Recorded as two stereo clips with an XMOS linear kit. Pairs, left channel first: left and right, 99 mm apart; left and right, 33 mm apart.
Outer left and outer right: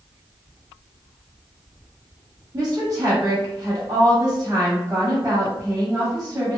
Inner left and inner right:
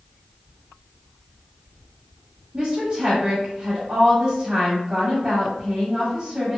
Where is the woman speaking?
40° right (ahead or behind), 1.5 m.